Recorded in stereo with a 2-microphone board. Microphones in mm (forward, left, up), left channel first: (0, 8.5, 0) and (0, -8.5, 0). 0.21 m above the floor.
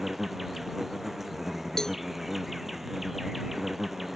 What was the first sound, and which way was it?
An insect, 15° right (ahead or behind).